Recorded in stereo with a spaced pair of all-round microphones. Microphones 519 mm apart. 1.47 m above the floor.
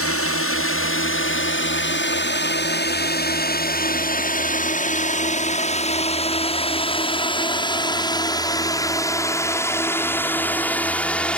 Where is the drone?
25° left (ahead or behind); by 11.4 s centre (ahead or behind).